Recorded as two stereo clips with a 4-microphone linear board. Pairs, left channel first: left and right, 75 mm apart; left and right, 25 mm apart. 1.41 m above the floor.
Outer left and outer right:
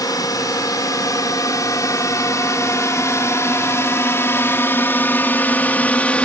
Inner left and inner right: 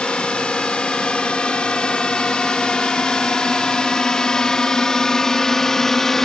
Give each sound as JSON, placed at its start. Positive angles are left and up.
{"t": 0.0, "sound": "a drone", "side_deg": 55}